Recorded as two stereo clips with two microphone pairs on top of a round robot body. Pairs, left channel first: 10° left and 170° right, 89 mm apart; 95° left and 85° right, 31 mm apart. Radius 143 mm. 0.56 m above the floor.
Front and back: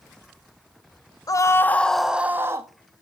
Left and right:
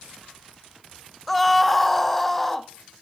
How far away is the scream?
About 1.3 m.